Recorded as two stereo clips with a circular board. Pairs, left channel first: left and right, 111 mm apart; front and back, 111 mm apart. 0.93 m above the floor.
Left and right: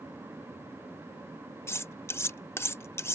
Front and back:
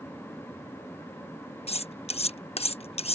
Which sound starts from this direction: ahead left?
Cutlery clinking, at 1.7 s.